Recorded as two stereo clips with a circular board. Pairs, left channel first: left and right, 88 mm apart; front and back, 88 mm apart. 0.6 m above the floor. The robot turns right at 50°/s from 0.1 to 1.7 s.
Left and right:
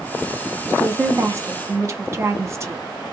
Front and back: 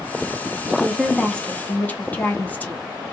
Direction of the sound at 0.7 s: 110° right.